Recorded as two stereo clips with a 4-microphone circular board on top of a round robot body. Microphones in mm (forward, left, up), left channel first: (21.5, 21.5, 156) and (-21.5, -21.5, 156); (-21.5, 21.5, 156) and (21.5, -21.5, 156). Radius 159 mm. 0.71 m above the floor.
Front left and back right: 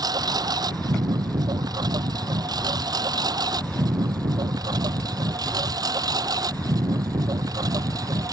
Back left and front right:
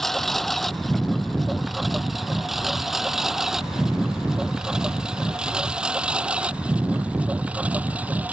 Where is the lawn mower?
140° right; by 8.3 s 115° right.